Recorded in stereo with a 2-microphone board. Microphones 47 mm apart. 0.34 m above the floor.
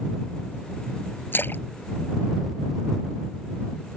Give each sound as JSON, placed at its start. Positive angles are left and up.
{"t": 1.3, "sound": "a splash", "side_deg": 45}